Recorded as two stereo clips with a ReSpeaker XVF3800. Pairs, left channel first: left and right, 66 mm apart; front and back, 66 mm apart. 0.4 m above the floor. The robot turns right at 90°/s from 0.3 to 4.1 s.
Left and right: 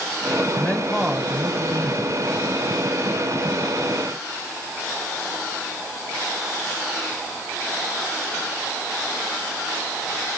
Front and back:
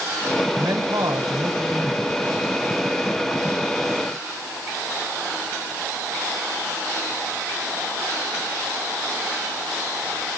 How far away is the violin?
No violin in this recording.